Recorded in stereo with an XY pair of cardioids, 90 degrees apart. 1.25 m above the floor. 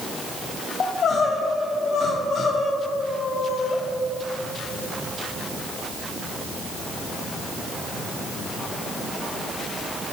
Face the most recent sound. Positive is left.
turn(degrees=65)